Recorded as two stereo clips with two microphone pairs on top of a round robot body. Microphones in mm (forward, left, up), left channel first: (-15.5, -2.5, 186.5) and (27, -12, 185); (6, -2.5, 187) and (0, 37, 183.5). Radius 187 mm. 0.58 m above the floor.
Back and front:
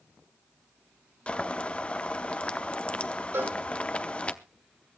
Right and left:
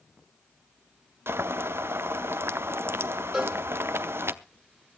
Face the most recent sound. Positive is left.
turn(degrees=10)